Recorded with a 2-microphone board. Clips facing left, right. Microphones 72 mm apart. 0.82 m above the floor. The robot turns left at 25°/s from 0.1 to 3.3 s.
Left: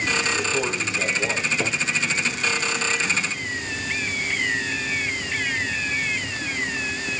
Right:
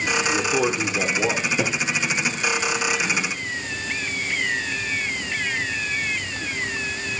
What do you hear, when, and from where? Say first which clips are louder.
0.3 s a man speaking: right 3 dB; 55° right, 3 m; by 1.5 s 85° right, 3 m
1.6 s a cupboard door: right 2 dB; 70° right (ahead or behind), 4 m; by 1.8 s 65° right (ahead or behind), 4 m